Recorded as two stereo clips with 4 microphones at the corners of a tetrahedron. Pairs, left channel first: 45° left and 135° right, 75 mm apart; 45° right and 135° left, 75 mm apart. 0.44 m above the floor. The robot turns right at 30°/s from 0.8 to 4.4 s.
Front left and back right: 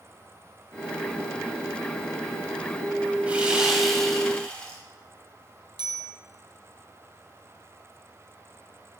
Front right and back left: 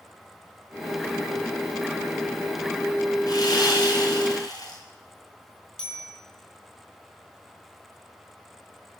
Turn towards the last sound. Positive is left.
turn(degrees=-125)